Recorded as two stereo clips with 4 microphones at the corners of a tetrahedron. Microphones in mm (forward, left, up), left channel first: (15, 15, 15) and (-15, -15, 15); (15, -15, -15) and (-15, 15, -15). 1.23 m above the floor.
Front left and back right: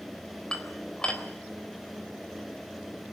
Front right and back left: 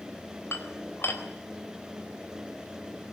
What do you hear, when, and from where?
0.5 s dishes clattering: 25° right, 3.5 m